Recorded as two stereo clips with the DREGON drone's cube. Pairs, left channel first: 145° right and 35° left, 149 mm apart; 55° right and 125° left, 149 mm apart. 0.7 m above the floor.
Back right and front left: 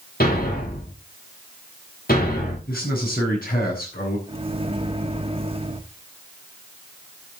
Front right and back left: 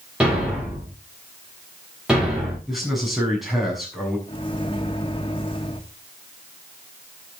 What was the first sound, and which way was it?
A thud, 150° right.